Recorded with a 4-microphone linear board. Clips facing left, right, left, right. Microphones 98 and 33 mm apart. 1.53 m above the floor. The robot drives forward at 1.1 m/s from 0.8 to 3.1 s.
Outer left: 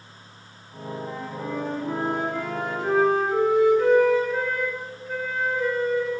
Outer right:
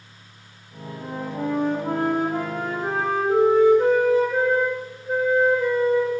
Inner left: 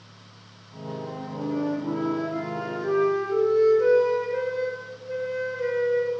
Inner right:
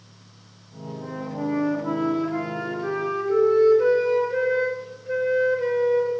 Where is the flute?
60° right (ahead or behind), 1.4 m; by 6.1 s 35° right (ahead or behind), 2 m.